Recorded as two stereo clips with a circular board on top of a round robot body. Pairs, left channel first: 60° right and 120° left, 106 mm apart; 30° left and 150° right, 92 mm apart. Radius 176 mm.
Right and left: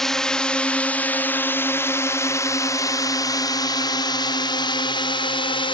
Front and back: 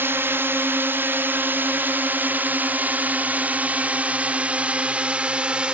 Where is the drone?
140° right; by 5.7 s 75° right.